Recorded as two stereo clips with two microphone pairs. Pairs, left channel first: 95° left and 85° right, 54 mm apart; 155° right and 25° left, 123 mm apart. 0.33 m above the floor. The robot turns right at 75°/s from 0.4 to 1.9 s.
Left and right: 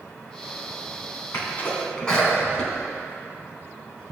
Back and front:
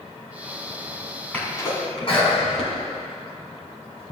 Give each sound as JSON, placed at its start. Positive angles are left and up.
{"t": 1.3, "sound": "a sneeze", "azimuth_deg": 130, "distance_m": 2.5}